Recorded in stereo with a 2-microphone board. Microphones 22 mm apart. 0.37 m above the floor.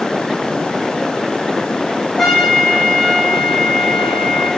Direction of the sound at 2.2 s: 5° left (ahead or behind).